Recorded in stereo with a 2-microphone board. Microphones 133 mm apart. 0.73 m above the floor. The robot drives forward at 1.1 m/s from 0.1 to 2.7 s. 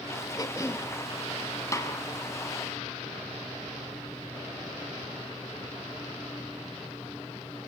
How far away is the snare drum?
About 2 m.